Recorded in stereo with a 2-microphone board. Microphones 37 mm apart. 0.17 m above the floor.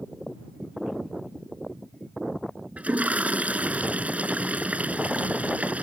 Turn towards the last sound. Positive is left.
turn(degrees=-40)  # may be behind; listen again after turning